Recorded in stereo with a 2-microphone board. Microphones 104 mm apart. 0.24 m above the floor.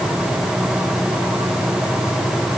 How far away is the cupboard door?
I don't hear a cupboard door.